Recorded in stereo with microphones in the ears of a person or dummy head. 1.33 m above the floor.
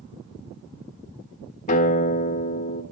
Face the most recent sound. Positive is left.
turn(degrees=40)  # may be behind; listen again after turning